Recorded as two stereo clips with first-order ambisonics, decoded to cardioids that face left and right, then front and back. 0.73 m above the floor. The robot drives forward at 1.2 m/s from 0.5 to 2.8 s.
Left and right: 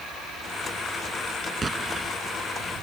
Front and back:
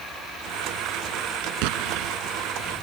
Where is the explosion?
165° right.